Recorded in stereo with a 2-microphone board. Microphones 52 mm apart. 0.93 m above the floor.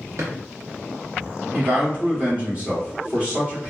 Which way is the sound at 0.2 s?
60° right (ahead or behind).